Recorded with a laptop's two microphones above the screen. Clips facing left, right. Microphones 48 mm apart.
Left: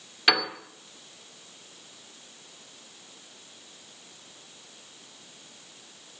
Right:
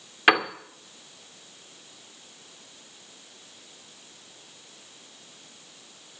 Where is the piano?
30° right (ahead or behind), 2 m.